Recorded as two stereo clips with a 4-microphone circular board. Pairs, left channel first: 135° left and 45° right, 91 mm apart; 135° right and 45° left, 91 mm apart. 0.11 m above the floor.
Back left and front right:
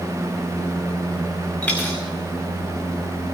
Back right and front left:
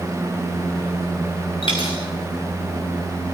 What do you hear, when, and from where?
1.6 s a dropped coin: 150° right, 3 m